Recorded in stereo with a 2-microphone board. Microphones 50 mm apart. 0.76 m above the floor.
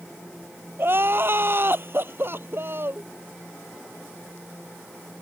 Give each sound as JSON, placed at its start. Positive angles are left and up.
{"t": 0.8, "sound": "crying", "side_deg": -45}